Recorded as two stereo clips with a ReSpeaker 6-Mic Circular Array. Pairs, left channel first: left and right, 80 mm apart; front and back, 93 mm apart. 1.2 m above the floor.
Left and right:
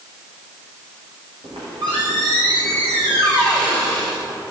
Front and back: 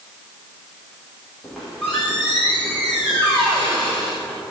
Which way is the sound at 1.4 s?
80° right.